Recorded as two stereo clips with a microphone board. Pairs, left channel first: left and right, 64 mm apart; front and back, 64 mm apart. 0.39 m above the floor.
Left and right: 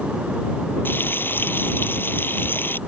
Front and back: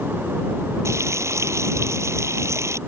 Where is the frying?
145° left.